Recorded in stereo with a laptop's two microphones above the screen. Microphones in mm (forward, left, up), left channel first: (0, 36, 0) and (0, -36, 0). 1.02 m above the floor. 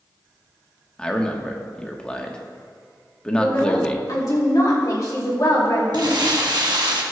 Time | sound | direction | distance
1.0 | a man speaking | 10° left (ahead or behind) | 1.3 m
3.4 | a woman speaking | 55° left (ahead or behind) | 2.5 m
5.9 | crumpling | 70° right (ahead or behind) | 1.3 m